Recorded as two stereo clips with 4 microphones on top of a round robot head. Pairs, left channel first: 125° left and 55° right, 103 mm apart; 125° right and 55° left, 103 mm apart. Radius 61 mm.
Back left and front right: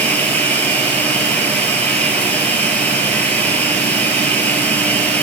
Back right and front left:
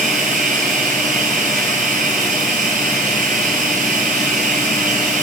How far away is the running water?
About 2.5 m.